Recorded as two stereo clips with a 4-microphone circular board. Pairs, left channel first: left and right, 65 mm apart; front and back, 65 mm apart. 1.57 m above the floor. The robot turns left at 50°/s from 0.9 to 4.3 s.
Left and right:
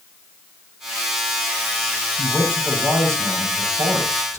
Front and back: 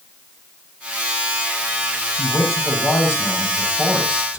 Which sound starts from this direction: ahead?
A man speaking, at 2.2 s.